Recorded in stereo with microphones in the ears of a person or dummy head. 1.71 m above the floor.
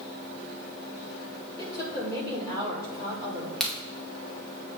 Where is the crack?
5° left (ahead or behind), 2.5 m.